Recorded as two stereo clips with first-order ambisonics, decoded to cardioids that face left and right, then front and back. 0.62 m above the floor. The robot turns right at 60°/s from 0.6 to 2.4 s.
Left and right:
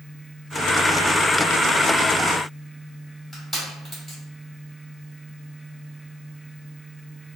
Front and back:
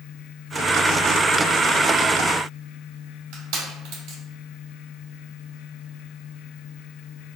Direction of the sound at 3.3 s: 170° right.